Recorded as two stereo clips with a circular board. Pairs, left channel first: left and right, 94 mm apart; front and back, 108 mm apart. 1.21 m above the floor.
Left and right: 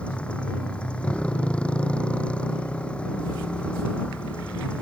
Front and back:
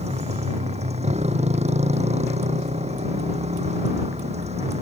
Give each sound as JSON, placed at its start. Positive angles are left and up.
{"t": 0.0, "sound": "a motorcycle", "azimuth_deg": 170}